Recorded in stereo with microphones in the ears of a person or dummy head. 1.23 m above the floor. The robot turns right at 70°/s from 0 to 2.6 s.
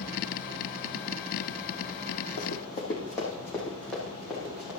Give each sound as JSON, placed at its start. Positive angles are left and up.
{"t": 2.4, "sound": "running footsteps", "side_deg": 45, "distance_m": 2.5}